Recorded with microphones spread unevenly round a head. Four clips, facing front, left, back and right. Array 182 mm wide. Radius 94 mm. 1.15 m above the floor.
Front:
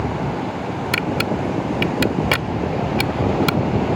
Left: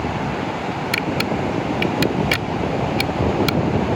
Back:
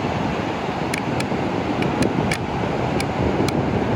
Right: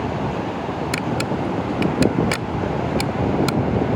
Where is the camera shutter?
10° right.